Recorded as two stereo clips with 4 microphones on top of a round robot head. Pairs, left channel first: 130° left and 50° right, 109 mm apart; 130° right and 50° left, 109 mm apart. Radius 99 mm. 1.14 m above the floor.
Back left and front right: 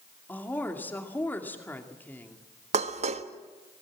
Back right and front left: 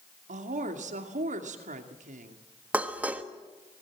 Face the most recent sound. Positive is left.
turn(degrees=-25)